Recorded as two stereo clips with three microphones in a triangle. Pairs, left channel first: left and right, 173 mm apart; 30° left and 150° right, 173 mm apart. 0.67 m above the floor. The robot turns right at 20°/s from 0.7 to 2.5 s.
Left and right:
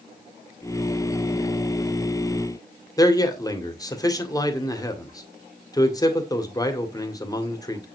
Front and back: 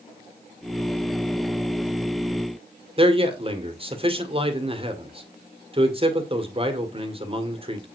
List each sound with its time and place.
3.0 s a man speaking: 155° left, 2 m